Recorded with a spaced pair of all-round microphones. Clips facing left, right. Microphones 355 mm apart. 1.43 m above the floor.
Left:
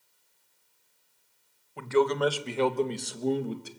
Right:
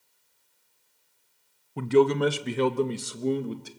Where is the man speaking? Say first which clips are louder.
Right 4 dB; 50° right (ahead or behind), 1.1 m; by 3.7 s centre (ahead or behind), 1.5 m.